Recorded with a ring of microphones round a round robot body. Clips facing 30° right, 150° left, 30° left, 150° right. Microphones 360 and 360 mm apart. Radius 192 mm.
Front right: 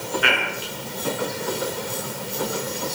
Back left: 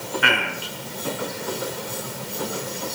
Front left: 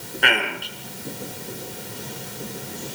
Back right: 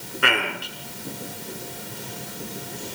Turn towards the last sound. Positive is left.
turn(degrees=130)